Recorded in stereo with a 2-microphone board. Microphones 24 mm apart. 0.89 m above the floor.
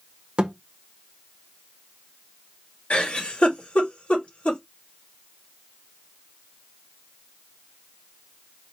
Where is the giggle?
80° left, 2.5 m.